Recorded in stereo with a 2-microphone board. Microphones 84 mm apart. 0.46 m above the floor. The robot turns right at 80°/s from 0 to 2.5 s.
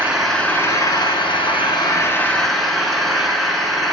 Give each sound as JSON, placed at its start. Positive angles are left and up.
{"t": 0.0, "sound": "an engine running", "azimuth_deg": -20, "distance_m": 1.9}